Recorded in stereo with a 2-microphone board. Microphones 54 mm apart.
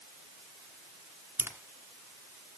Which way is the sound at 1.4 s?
45° right (ahead or behind).